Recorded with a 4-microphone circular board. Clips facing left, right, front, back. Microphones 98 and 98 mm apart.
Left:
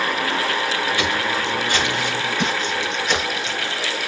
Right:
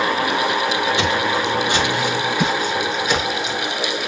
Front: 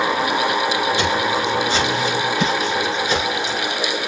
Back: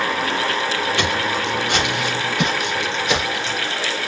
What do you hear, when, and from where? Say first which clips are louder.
1.0 s footsteps: right 3 dB, front 2 dB; 160° right, 8.5 m; by 3.6 s straight behind, 5.5 m